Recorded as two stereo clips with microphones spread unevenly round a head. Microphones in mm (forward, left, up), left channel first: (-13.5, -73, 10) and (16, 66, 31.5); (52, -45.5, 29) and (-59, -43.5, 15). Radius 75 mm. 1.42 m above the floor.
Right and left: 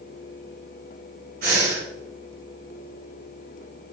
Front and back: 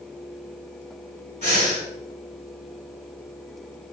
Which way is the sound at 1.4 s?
45° left.